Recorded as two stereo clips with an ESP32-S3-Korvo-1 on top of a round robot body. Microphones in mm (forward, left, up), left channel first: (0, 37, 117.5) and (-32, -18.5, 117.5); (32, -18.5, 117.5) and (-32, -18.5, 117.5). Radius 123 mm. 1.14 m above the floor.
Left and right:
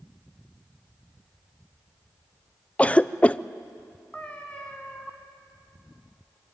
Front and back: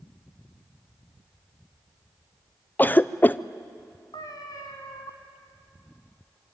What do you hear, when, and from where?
2.8 s a cough: 15° left, 0.7 m
4.1 s a cat meowing: 15° right, 1.1 m